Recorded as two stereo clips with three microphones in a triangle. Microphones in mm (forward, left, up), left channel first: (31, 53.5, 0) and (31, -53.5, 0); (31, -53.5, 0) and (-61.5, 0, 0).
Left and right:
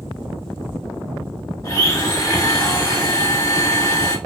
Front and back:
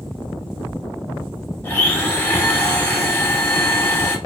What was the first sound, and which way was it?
A blender, 35° left.